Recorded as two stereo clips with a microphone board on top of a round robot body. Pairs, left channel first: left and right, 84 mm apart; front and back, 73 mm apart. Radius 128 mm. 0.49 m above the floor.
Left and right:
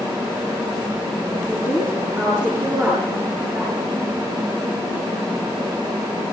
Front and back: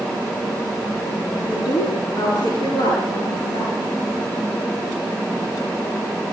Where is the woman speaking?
30° right, 9 m.